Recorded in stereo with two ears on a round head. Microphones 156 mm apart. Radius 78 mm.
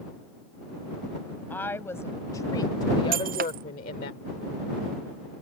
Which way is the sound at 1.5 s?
10° left (ahead or behind).